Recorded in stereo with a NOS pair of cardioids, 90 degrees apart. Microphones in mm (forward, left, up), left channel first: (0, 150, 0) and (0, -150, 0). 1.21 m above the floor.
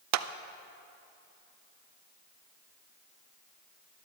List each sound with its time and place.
0.1 s a clap: 65° right, 0.5 m